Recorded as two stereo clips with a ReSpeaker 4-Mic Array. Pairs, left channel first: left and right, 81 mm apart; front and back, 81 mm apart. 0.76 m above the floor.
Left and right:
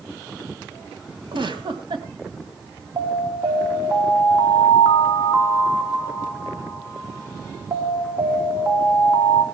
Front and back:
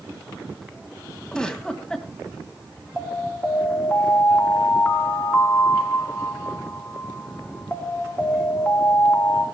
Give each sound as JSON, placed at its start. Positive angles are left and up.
{"t": 1.3, "sound": "a giggle", "azimuth_deg": -80, "distance_m": 1.9}
{"t": 3.0, "sound": "an alarm", "azimuth_deg": -65, "distance_m": 3.0}